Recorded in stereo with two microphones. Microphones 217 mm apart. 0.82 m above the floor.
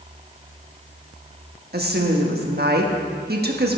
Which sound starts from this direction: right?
A woman speaking, at 1.7 s.